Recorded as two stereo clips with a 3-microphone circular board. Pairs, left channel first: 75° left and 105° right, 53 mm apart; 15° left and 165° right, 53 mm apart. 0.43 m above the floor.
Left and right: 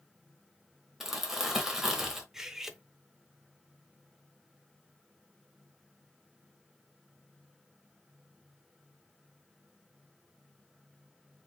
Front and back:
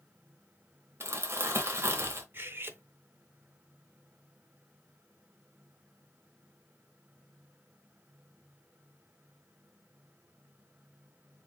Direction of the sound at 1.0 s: 175° left.